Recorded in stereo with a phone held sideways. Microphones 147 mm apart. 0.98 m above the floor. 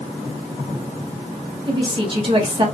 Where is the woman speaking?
35° right (ahead or behind), 1.3 m.